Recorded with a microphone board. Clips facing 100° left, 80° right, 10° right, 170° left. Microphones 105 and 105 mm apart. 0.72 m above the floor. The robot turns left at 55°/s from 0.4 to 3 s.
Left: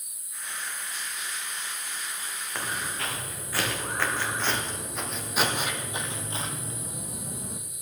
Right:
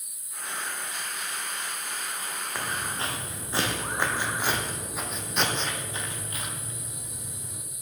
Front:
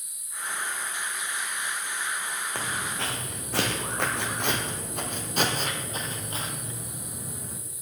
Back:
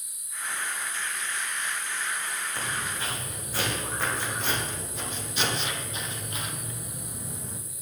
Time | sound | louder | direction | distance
2.5 | footsteps | even, front 2 dB | 5° left | 3 m